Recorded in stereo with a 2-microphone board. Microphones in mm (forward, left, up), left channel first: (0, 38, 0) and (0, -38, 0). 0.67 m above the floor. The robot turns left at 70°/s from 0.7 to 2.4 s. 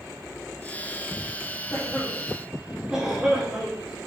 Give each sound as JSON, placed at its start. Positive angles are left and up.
{"t": 1.7, "sound": "a cough", "side_deg": 30, "distance_m": 2.0}